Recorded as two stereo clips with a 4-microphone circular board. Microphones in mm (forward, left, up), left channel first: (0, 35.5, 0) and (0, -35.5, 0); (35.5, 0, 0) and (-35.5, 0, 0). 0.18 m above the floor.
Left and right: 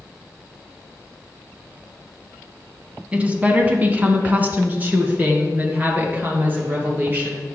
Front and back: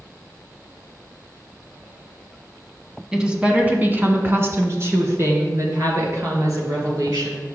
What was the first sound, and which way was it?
A woman speaking, 115° right.